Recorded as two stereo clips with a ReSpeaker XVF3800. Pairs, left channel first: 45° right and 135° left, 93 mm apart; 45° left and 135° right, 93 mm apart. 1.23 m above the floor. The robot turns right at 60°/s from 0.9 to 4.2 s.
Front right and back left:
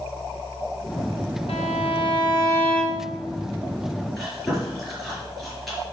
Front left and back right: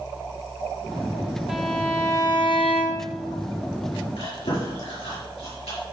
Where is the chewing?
40° left, 5.5 m; by 5.8 s 45° left, 5.5 m.